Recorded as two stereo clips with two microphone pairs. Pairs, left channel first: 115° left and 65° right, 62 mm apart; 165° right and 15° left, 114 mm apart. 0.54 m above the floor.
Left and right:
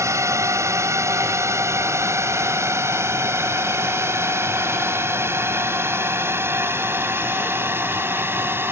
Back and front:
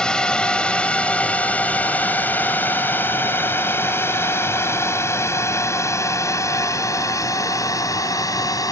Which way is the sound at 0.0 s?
80° right.